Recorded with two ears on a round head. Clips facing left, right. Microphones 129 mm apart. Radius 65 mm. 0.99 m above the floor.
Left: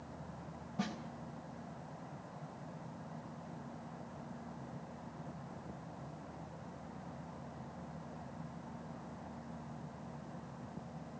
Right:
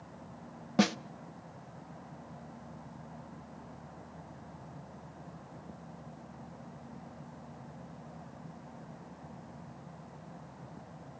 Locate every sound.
0.8 s a snare drum: 75° right (ahead or behind), 0.5 m